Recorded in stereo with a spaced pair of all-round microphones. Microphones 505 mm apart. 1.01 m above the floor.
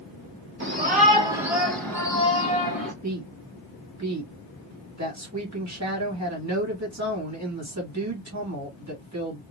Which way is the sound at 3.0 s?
35° right (ahead or behind).